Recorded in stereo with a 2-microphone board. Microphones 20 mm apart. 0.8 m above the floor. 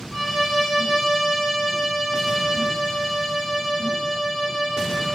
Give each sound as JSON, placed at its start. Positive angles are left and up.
{"t": 0.1, "sound": "a violin", "side_deg": 5, "distance_m": 1.6}